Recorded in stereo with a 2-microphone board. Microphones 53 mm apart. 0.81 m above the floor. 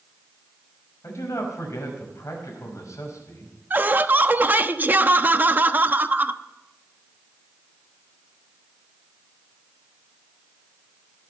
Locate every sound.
1.0 s a man speaking: 65° left (ahead or behind), 5.5 m
3.7 s laughter: 35° right (ahead or behind), 0.9 m